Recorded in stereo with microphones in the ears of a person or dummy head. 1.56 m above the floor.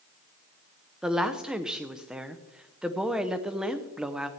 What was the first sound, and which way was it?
A woman speaking, 5° right (ahead or behind).